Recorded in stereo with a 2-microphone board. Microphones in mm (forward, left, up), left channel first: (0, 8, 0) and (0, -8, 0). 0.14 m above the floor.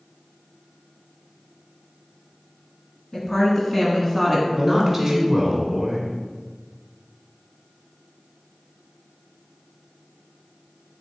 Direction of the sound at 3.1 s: 35° left (ahead or behind).